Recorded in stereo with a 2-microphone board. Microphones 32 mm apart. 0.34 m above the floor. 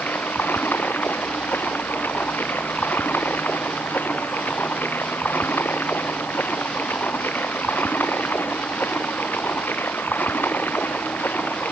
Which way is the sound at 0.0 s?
80° left.